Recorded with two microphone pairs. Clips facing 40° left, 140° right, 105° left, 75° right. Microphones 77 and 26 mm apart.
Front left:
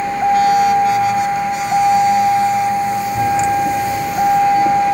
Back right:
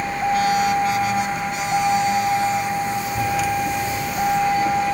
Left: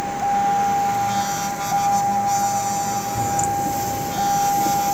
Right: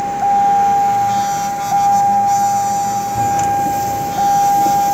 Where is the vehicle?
25° right.